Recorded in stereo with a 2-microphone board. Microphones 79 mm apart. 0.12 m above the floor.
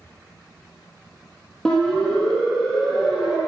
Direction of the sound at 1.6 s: 5° left (ahead or behind).